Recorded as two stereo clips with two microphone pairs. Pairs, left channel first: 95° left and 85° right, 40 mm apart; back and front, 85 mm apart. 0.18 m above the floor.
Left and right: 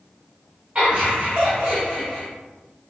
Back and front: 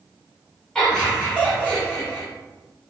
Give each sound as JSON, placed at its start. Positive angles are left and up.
{"t": 0.8, "sound": "laughter", "azimuth_deg": -105, "distance_m": 2.0}